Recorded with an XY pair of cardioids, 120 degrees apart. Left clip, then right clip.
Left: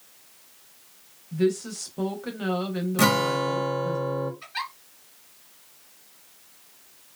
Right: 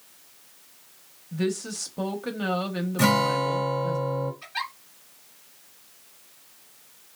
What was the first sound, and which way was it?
A woman speaking, 15° right.